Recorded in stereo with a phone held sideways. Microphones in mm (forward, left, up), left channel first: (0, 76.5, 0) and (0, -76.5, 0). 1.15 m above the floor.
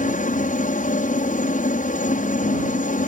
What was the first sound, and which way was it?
A helicopter, 60° left (ahead or behind).